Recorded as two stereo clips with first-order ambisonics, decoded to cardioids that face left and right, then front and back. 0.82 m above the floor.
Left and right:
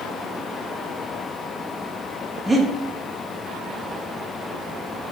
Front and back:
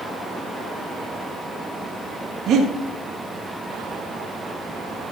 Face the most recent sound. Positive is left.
turn(degrees=-170)